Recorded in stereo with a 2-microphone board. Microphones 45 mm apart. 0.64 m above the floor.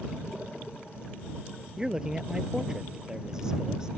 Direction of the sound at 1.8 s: 15° right (ahead or behind).